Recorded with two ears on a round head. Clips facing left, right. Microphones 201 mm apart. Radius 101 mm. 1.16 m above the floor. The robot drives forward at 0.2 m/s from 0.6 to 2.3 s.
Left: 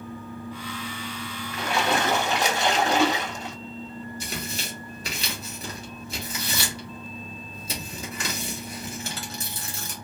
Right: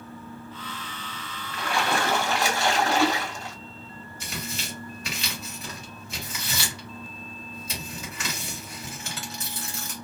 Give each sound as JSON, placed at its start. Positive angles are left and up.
{"t": 1.5, "sound": "a splash", "side_deg": 20, "distance_m": 0.5}
{"t": 4.2, "sound": "tearing paper", "side_deg": 35, "distance_m": 1.3}